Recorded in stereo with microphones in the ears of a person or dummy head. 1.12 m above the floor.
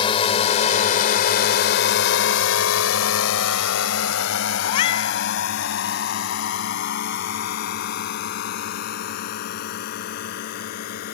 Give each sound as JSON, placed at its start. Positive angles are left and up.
{"t": 0.0, "sound": "a drone", "side_deg": 30}
{"t": 4.6, "sound": "a cat meowing", "side_deg": 35}